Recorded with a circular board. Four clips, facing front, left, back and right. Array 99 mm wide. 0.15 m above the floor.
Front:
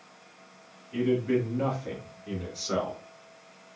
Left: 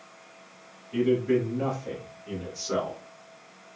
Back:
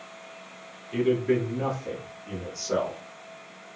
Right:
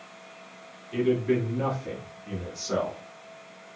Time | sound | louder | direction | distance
0.9 | a man speaking | left 1 dB, back 2 dB | 135° right | 1.2 m